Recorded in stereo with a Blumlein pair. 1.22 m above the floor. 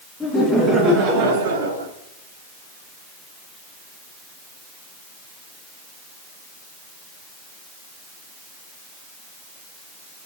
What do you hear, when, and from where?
0.2 s laughter: 5° right, 1.4 m; by 1.9 s 75° right, 1.4 m